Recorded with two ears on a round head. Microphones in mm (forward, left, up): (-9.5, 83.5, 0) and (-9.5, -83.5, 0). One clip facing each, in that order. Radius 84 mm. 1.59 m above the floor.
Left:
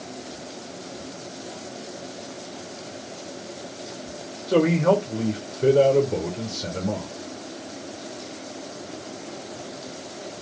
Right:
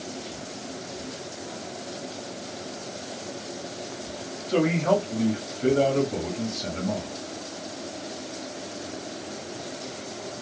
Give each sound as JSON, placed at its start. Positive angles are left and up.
{"t": 4.5, "sound": "a man speaking", "side_deg": 80, "distance_m": 1.1}